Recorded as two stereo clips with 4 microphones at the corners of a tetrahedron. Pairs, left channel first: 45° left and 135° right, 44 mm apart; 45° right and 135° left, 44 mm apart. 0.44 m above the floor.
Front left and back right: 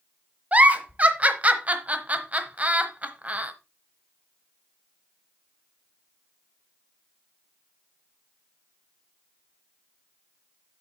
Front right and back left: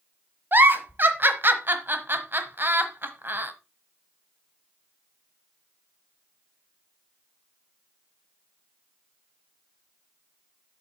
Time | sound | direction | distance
0.5 | a giggle | 170° left | 1.0 m